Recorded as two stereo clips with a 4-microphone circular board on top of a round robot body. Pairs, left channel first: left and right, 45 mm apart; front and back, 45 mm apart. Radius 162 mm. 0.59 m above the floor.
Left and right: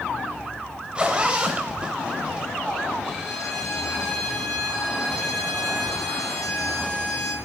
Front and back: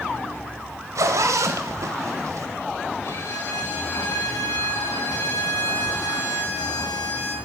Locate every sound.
0.9 s a zipper: 160° right, 0.6 m
3.0 s a violin: 5° left, 6 m